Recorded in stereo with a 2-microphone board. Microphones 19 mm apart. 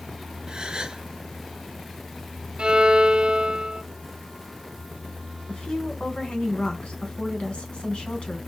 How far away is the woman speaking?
About 3 m.